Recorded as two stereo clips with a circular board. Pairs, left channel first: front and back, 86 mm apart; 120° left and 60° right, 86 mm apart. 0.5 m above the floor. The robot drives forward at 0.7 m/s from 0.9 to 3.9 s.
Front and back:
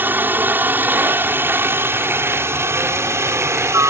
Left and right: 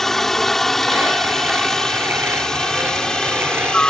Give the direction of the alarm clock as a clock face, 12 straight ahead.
I don't hear an alarm clock.